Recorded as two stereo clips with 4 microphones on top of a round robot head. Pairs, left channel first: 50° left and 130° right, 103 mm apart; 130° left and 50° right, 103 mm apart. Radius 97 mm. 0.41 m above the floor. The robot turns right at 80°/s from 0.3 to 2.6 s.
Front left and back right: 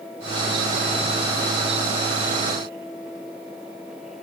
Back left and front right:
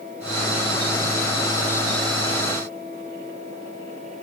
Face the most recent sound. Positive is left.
No sound to turn to.